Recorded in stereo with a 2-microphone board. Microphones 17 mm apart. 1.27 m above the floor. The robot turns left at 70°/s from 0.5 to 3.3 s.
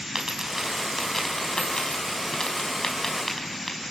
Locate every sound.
0.1 s a dropped coin: 25° right (ahead or behind), 5 m; by 3.8 s 10° left (ahead or behind), 5 m